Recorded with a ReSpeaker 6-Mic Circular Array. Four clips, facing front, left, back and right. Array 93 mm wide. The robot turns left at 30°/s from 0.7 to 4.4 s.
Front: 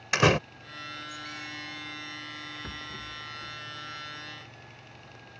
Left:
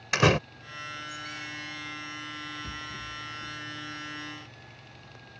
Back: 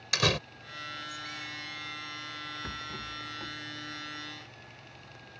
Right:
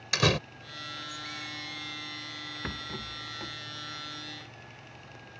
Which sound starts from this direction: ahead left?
A door slam, at 0.1 s.